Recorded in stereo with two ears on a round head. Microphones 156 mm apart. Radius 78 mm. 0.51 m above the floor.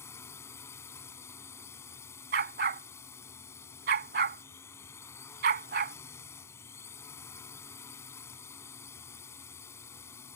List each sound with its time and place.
0.0 s a drone: 15° left (ahead or behind)
2.3 s a dog barking: 60° right (ahead or behind)